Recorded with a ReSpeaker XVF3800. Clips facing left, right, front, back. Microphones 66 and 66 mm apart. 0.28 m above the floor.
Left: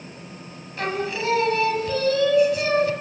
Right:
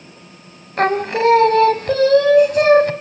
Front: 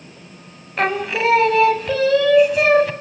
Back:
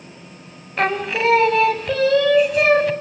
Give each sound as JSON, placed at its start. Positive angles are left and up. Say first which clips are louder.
{"t": 0.8, "sound": "singing", "louder": "right 10 dB, even", "azimuth_deg": -90, "distance_m": 1.3}